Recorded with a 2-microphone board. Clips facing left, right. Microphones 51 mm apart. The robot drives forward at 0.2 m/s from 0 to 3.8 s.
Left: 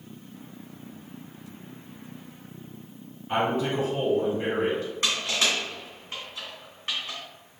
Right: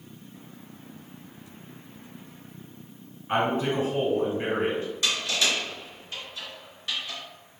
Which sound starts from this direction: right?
A man speaking, at 3.3 s.